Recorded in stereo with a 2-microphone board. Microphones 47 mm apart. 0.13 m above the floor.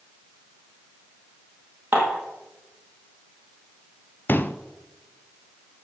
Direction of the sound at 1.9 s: 40° right (ahead or behind).